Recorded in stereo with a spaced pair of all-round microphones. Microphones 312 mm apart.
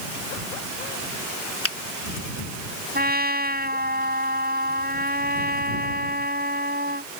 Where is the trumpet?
30° right (ahead or behind).